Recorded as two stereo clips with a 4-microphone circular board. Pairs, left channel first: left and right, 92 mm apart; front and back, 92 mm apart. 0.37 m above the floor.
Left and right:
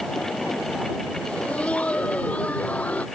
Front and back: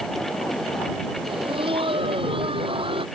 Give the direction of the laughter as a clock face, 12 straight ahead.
6 o'clock.